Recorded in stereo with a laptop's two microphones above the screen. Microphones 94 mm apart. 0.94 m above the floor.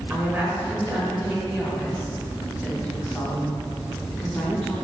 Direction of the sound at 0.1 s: 25° right (ahead or behind).